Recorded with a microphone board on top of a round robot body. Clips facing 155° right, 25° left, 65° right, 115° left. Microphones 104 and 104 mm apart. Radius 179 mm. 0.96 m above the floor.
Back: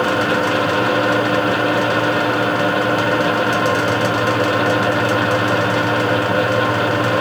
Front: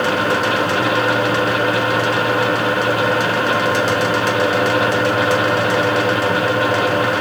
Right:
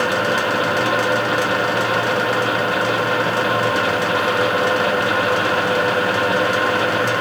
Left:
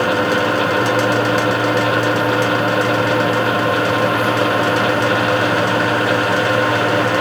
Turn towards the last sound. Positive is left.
No sound to turn to.